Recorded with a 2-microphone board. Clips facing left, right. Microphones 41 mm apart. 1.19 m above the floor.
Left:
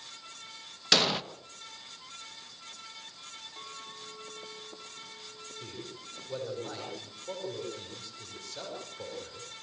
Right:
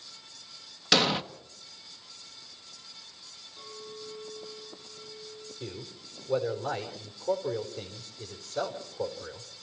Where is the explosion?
Centre (ahead or behind), 1.0 m.